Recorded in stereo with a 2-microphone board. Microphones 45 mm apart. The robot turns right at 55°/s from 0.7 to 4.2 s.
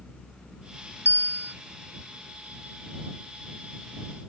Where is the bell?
70° right (ahead or behind); by 1.5 s 55° right (ahead or behind).